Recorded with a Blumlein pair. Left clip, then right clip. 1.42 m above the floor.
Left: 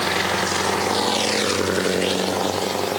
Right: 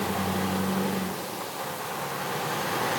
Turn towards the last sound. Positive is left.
No sound to turn to.